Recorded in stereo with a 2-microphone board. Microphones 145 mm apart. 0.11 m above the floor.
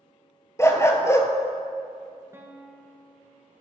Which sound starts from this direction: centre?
A guitar, at 2.3 s.